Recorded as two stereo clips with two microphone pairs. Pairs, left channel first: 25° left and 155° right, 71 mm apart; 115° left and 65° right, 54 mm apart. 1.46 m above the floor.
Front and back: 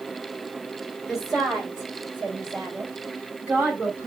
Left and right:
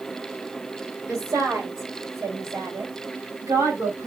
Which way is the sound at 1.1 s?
65° right.